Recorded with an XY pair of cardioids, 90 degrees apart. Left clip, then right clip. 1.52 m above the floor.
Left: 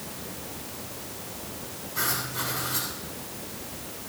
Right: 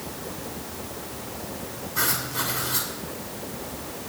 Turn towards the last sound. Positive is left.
turn(degrees=-35)